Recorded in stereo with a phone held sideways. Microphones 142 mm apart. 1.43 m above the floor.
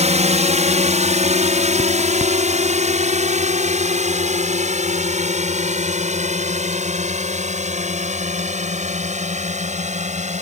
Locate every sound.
0.0 s a drone: 55° right (ahead or behind)